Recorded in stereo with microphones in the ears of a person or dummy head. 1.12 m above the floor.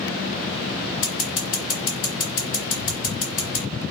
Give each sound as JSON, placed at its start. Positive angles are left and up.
{"t": 1.0, "sound": "scissors", "side_deg": 45, "distance_m": 1.4}